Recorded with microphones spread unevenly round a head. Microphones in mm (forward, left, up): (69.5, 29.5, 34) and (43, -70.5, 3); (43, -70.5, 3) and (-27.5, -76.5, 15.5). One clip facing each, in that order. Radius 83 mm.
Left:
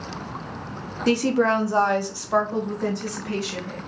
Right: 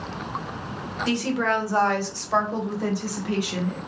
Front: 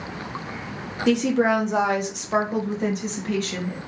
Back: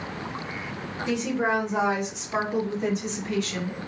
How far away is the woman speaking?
About 1.0 m.